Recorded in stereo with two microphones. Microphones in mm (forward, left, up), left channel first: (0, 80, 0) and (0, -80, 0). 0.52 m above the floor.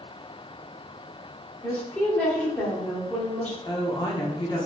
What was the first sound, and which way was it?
A woman speaking, 10° left (ahead or behind).